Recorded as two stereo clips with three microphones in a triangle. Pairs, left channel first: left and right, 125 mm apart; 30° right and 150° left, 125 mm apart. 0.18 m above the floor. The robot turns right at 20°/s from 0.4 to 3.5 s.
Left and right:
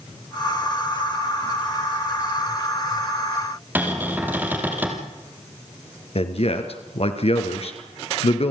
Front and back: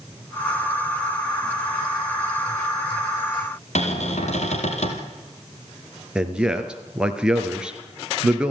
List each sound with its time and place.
3.8 s a cupboard door: 15° right, 3.5 m
6.2 s a man speaking: 70° left, 2.5 m